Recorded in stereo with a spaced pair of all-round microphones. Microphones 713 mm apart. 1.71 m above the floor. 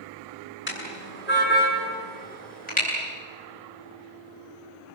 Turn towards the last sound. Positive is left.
turn(degrees=10)  # may be behind; listen again after turning